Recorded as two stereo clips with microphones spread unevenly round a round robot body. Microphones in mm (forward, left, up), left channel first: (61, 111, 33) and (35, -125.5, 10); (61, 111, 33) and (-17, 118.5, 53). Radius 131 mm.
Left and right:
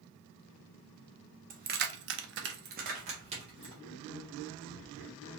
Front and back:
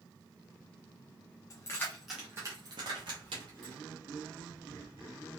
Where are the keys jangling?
45° right, 0.6 m; by 3.8 s 165° right, 1.2 m.